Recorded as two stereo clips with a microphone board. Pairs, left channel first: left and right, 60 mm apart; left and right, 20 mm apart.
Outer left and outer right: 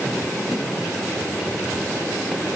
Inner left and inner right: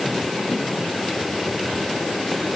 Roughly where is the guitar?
I don't hear a guitar.